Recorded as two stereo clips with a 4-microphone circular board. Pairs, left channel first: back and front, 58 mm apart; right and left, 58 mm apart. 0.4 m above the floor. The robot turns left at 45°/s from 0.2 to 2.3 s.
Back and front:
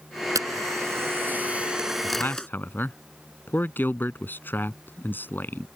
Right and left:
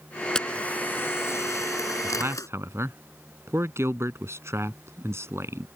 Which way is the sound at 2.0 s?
140° left.